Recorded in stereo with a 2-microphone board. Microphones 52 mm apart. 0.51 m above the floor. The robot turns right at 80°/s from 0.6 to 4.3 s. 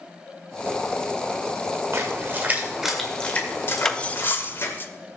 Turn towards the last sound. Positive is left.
turn(degrees=40)  # may be behind; listen again after turning